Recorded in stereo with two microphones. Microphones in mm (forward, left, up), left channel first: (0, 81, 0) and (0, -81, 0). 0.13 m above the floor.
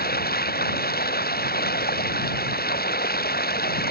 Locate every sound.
0.0 s running water: 70° left (ahead or behind)